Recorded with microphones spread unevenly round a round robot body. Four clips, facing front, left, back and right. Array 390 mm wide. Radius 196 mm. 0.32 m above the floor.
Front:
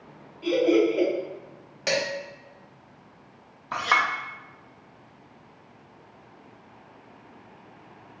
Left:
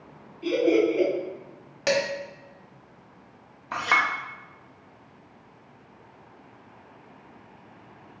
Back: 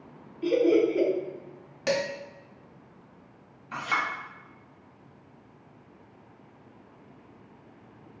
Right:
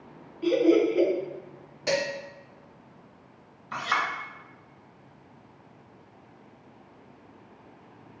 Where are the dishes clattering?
110° left, 1.4 m.